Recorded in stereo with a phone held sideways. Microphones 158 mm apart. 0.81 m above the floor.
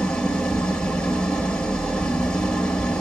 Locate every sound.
0.0 s an engine running: 5° left (ahead or behind), 2.5 m